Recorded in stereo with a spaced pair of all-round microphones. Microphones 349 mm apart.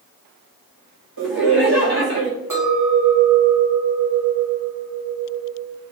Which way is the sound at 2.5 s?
60° right (ahead or behind).